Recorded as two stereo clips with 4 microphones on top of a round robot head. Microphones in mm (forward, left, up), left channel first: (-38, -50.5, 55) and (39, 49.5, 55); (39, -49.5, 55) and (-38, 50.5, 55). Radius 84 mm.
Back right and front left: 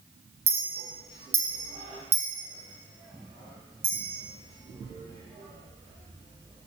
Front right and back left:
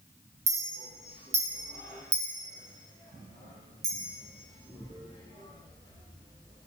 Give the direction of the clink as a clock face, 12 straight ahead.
9 o'clock.